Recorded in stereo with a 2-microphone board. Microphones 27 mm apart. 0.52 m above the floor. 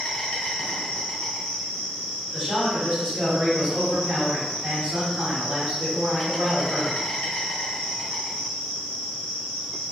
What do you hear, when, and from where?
0.0 s an insect: 50° left (ahead or behind), 1.1 m
2.3 s a man speaking: 30° right (ahead or behind), 1.7 m